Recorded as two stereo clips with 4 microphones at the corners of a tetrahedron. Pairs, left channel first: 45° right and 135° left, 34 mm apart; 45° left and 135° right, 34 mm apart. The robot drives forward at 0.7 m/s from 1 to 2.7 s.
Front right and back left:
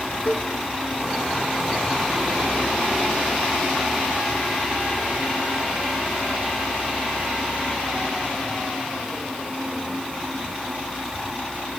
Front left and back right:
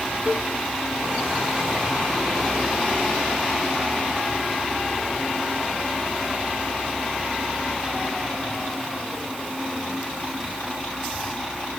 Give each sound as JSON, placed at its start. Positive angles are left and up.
{"t": 0.3, "sound": "a cowbell", "azimuth_deg": -85, "distance_m": 4.5}